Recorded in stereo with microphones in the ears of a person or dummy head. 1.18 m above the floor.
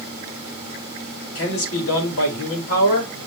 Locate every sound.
1.4 s a man speaking: 70° left (ahead or behind), 3.5 m